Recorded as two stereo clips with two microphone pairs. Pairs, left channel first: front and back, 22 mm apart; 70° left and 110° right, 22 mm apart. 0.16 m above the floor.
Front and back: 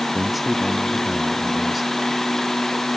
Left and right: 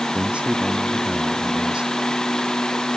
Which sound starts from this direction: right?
A man speaking, at 0.1 s.